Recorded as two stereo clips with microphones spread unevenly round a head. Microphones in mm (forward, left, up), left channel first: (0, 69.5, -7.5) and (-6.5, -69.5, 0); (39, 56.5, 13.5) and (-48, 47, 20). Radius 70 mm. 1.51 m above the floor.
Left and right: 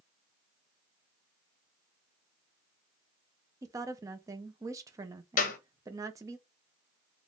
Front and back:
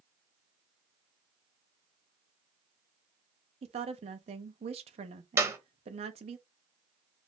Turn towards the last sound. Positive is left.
turn(degrees=125)